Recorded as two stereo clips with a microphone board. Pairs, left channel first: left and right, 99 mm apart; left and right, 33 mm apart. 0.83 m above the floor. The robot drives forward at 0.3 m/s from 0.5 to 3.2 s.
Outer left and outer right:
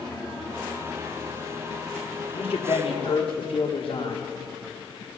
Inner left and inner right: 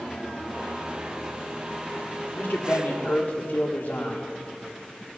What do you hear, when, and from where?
2.4 s a man speaking: 75° left (ahead or behind), 1.5 m; by 4.3 s 70° left (ahead or behind), 1.6 m